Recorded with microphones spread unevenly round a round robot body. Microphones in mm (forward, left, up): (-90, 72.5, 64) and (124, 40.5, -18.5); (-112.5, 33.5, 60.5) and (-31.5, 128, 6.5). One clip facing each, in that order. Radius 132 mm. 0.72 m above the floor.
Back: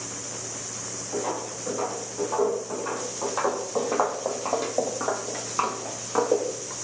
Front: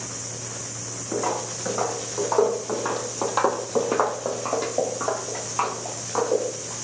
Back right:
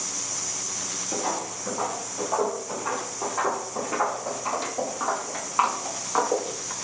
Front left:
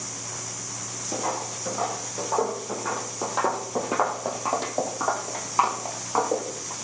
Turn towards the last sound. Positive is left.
turn(degrees=115)